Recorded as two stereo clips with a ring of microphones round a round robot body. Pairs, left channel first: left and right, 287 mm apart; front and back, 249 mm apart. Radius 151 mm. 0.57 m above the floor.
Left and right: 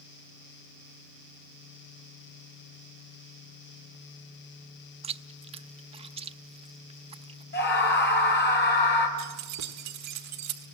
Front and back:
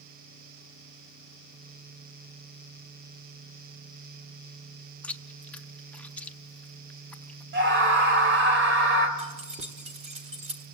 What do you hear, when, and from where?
5.0 s chewing: 75° right, 0.8 m
7.5 s a scream: 145° left, 3.5 m
9.2 s keys jangling: 115° right, 1.5 m